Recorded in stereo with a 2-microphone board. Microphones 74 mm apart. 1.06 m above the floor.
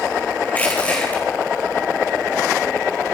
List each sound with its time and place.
0.5 s crushing: 20° left (ahead or behind), 5 m